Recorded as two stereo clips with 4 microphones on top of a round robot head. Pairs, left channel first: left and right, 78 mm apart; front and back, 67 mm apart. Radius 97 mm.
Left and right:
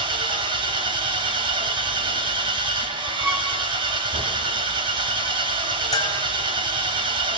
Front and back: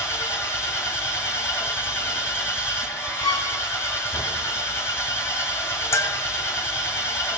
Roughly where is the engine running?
Ahead right.